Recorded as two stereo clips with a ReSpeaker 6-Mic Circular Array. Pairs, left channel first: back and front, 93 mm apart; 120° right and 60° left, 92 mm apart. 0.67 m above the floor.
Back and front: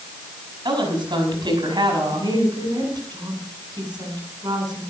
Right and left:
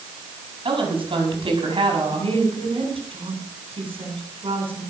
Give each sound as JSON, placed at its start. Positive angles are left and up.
{"t": 0.7, "sound": "a woman speaking", "azimuth_deg": 40, "distance_m": 5.5}
{"t": 2.1, "sound": "a woman speaking", "azimuth_deg": 45, "distance_m": 6.5}